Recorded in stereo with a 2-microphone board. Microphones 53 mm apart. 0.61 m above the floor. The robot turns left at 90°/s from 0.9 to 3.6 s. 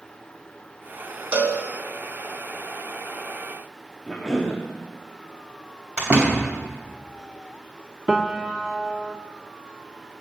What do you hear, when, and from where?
1.3 s a cowbell: 30° right (ahead or behind), 1.0 m; by 1.6 s 50° right (ahead or behind), 1.0 m
4.1 s a cough: 15° left (ahead or behind), 1.0 m
6.0 s a door slam: 25° right (ahead or behind), 3 m
8.1 s a piano: 5° right (ahead or behind), 0.6 m